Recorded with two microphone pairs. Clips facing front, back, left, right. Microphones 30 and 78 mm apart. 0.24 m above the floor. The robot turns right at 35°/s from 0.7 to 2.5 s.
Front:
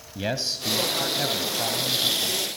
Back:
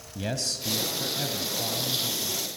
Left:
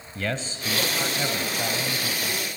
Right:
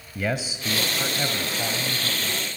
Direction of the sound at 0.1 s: 25° right.